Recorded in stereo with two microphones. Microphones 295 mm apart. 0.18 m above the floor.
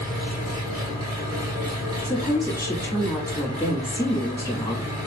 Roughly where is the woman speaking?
Centre.